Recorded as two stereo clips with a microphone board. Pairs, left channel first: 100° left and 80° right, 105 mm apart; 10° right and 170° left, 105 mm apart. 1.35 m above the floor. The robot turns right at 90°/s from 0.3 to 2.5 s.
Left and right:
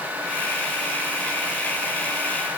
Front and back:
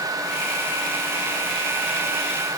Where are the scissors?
I don't hear scissors.